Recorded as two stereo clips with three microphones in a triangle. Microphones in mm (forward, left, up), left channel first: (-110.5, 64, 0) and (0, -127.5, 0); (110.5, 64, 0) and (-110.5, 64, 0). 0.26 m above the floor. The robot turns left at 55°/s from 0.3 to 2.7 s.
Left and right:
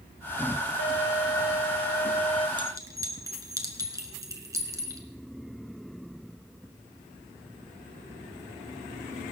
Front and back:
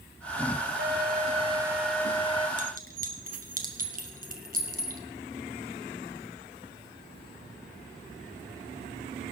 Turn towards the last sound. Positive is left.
turn(degrees=-135)